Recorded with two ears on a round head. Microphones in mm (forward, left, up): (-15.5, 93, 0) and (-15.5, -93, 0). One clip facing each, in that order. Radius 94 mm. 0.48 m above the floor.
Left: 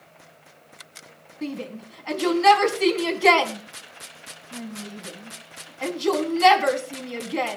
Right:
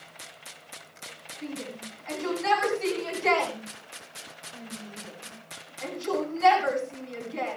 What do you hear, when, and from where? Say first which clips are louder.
1.4 s a shout: left 5 dB; 70° left (ahead or behind), 4.5 m